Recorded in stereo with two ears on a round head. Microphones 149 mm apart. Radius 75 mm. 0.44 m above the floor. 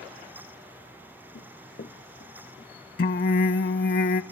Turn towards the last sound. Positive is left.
turn(degrees=55)  # may be behind; listen again after turning